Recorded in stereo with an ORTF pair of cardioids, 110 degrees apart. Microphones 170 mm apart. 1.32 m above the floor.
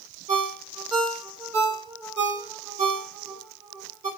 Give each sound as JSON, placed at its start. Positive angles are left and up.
{"t": 0.3, "sound": "a ringtone", "azimuth_deg": -40, "distance_m": 2.5}